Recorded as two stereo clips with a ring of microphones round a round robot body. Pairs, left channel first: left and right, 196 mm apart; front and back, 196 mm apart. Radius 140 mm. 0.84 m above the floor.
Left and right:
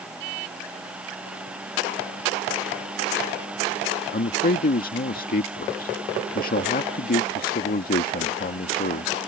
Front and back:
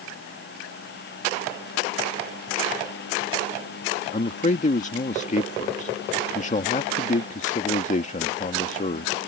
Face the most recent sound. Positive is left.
turn(degrees=50)